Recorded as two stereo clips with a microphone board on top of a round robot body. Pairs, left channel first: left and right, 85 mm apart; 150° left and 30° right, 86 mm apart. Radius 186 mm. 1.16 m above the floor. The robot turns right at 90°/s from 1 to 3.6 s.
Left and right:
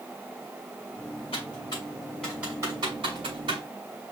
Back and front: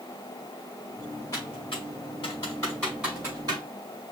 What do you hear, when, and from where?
1.3 s typing on a keyboard: 90° left, 2.5 m; by 3.6 s 65° right, 2.5 m